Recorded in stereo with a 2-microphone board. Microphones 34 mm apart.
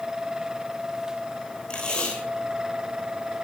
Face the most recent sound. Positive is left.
turn(degrees=35)  # may be behind; listen again after turning